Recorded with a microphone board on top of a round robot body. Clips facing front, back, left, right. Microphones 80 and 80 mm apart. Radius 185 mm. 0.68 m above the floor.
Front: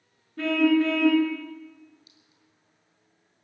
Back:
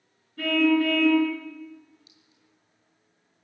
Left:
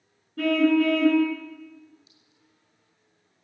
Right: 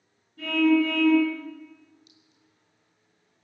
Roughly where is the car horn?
Ahead left.